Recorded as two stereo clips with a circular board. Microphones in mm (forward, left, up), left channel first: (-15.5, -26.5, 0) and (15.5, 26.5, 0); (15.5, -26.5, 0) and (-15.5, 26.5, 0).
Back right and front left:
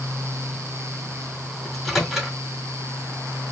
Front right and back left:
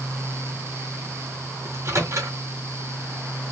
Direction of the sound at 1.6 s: 150° left.